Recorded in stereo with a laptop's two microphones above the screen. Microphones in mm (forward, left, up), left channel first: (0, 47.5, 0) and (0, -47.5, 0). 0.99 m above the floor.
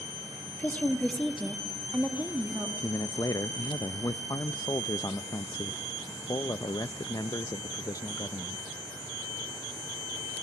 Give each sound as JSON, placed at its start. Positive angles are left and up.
{"t": 0.6, "sound": "a woman speaking", "side_deg": 25, "distance_m": 1.4}
{"t": 2.8, "sound": "a man speaking", "side_deg": 35, "distance_m": 0.6}